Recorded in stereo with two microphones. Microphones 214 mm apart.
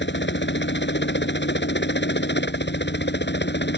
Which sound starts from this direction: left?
A helicopter, at 0.0 s.